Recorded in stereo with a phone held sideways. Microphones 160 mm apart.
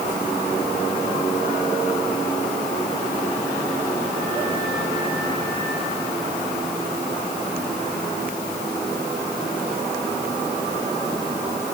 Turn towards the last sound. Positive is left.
No sound to turn to.